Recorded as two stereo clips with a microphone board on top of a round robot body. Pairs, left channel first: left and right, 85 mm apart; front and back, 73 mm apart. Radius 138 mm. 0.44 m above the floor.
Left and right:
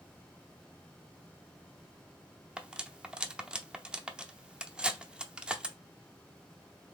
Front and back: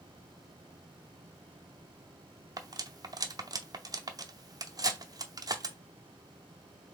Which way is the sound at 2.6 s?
165° right.